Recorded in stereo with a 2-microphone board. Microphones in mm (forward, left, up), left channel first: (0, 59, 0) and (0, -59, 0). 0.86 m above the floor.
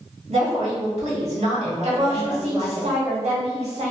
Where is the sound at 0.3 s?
65° right (ahead or behind), 1.9 m.